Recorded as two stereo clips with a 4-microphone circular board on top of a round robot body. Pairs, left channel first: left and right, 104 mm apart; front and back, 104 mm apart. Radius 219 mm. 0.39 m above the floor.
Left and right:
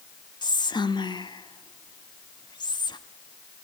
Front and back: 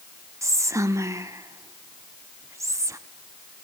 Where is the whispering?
125° left, 1.4 m.